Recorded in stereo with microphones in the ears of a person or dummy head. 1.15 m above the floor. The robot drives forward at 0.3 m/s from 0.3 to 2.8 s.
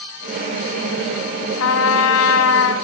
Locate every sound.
1.6 s a trumpet: 70° left (ahead or behind), 2.5 m